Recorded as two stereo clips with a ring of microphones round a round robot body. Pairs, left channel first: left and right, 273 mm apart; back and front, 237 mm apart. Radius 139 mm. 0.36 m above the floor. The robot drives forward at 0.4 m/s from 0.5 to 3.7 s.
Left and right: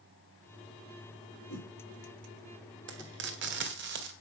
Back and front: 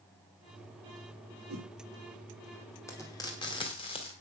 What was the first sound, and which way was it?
A whoosh, 45° left.